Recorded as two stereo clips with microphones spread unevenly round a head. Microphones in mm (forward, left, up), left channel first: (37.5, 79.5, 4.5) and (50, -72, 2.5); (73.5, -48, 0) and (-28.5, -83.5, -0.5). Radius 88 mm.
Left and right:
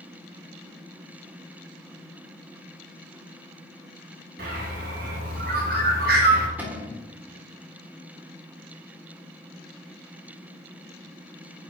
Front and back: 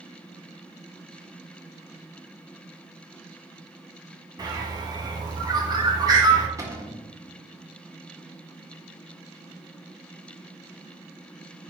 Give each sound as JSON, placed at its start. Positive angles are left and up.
{"t": 4.4, "sound": "a bird", "azimuth_deg": -110, "distance_m": 1.3}
{"t": 6.6, "sound": "a cupboard door", "azimuth_deg": -155, "distance_m": 1.2}